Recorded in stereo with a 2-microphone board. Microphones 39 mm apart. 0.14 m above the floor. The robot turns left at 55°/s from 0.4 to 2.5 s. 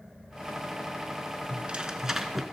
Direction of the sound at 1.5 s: 130° right.